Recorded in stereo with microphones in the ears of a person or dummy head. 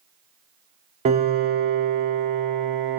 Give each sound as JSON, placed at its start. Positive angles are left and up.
{"t": 1.1, "sound": "a piano", "side_deg": -35, "distance_m": 0.6}